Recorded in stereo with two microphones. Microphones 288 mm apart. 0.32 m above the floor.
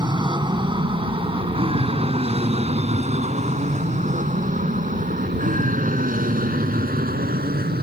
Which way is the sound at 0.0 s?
15° right (ahead or behind).